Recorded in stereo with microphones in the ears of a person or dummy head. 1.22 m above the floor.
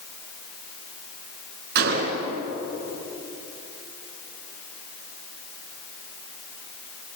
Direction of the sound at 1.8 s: 60° right (ahead or behind).